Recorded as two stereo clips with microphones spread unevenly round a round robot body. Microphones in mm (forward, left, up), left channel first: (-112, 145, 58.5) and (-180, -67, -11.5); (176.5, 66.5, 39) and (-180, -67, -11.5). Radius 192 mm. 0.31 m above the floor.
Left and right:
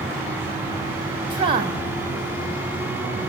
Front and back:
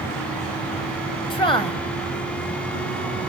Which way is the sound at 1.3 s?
60° right.